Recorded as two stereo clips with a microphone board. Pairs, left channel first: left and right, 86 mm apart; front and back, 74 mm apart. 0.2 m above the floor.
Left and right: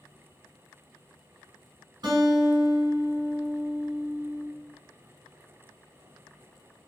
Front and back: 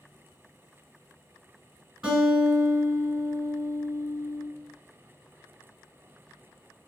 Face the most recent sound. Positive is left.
turn(degrees=-110)